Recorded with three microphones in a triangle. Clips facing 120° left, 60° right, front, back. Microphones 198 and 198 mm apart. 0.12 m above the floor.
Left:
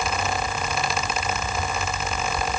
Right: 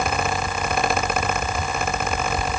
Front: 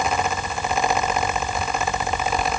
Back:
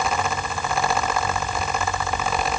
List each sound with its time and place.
Only background noise.